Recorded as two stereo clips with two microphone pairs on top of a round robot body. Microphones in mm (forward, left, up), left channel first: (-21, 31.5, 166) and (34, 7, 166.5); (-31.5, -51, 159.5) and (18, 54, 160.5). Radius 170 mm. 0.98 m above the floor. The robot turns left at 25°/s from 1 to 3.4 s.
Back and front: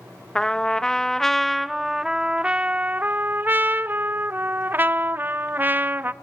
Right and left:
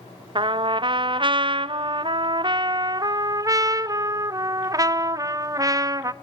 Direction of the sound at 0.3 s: 80° left.